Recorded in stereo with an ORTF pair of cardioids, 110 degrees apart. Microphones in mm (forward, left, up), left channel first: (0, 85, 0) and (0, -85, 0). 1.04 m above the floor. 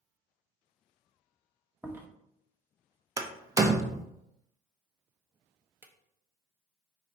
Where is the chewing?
10° right, 0.8 m.